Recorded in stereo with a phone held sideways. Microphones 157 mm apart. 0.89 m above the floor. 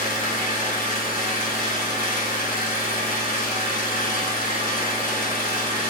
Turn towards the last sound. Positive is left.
turn(degrees=60)  # may be behind; listen again after turning